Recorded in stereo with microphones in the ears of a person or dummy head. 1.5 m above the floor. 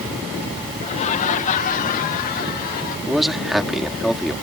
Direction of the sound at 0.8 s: 35° left (ahead or behind).